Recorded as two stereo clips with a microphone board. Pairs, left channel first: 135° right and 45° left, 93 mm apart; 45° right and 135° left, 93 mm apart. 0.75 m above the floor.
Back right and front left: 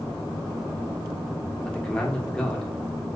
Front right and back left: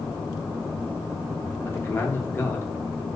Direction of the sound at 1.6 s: 70° right.